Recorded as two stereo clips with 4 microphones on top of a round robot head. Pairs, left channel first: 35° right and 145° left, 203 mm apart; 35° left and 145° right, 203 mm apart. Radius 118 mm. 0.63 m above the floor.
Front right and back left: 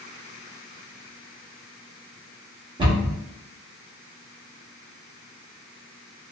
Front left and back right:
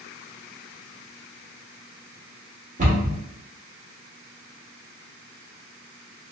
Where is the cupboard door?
160° right, 1.5 m.